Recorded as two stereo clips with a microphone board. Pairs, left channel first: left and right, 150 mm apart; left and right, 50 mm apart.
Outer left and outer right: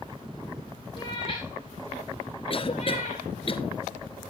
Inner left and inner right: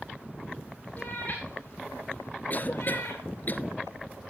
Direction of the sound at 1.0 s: 35° left (ahead or behind).